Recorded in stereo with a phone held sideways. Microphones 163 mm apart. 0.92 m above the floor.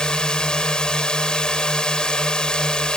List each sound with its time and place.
0.0 s a drone: 5° left (ahead or behind)